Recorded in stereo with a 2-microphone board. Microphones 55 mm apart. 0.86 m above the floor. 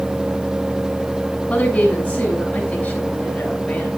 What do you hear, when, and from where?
1.5 s a woman speaking: 25° left (ahead or behind), 7 m